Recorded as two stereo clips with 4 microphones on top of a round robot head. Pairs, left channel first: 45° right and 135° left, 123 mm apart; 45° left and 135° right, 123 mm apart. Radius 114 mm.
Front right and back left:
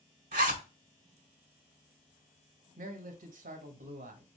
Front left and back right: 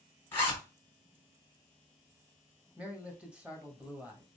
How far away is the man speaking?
About 1.5 m.